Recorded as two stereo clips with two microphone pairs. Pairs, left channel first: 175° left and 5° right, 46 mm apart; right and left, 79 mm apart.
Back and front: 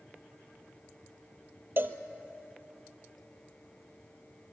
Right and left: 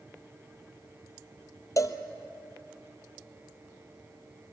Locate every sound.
1.8 s a cowbell: 45° right, 1.0 m